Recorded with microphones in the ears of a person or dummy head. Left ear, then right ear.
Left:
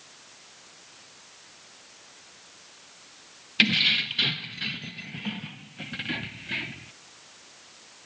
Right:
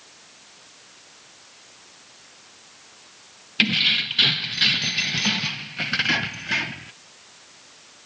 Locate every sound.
3.6 s keys jangling: centre (ahead or behind); by 6.9 s 45° right (ahead or behind)